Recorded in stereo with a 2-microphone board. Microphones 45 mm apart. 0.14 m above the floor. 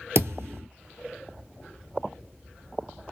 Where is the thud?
70° right (ahead or behind), 0.6 m.